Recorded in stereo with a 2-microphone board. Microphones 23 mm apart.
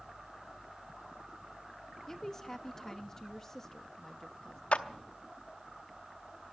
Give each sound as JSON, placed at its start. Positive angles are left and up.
{"t": 2.1, "sound": "a woman speaking", "side_deg": 20, "distance_m": 1.1}
{"t": 4.7, "sound": "a clap", "side_deg": 65, "distance_m": 0.8}